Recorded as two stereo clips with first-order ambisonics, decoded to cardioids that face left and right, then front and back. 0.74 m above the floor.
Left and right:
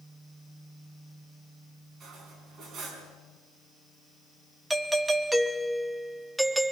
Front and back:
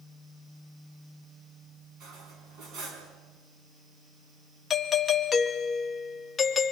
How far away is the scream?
I don't hear a scream.